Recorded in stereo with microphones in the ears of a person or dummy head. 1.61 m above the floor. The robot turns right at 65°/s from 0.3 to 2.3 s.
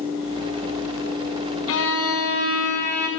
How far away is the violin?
About 2 m.